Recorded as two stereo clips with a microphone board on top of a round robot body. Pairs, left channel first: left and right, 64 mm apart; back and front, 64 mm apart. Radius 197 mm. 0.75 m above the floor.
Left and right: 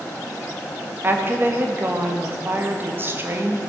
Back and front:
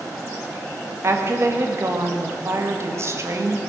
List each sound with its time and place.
1.0 s a woman speaking: 40° right, 1.8 m